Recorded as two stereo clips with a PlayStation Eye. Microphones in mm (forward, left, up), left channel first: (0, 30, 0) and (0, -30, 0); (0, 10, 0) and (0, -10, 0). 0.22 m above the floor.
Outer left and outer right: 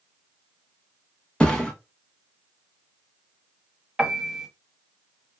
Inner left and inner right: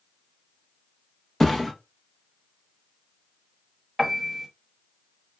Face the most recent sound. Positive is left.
turn(degrees=-10)  # may be behind; listen again after turning